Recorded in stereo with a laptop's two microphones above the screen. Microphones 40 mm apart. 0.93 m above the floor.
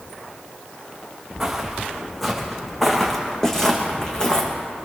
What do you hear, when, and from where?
1.4 s footsteps: 10° right (ahead or behind), 3 m; by 4.5 s 20° left (ahead or behind), 3 m